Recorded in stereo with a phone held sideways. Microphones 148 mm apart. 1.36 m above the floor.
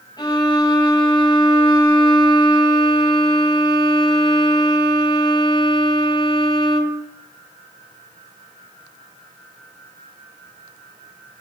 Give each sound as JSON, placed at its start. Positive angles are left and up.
{"t": 0.2, "sound": "a violin", "side_deg": 30, "distance_m": 6.5}